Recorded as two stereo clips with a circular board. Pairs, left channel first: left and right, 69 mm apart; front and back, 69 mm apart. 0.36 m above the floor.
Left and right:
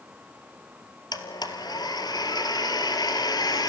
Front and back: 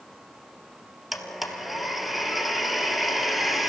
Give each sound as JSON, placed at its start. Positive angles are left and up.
{"t": 1.1, "sound": "a blender", "azimuth_deg": 95, "distance_m": 2.5}